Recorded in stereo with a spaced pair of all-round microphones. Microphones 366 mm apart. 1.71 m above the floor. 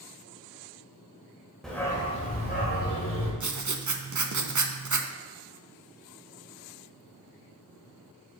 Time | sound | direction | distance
1.6 | a dog barking | centre (ahead or behind) | 1.8 m
3.4 | writing | 50° right (ahead or behind) | 0.7 m